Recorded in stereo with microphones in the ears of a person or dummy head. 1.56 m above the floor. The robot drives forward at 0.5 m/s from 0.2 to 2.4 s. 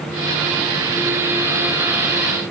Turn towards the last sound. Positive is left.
No sound to turn to.